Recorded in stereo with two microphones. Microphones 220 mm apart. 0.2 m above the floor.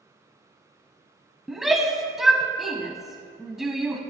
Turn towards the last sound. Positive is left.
turn(degrees=0)  # may be behind; listen again after turning